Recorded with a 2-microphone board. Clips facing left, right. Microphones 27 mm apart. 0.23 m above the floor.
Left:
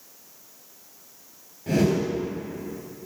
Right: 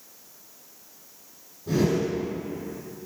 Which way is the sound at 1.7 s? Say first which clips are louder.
Left 1 dB; 75° left (ahead or behind).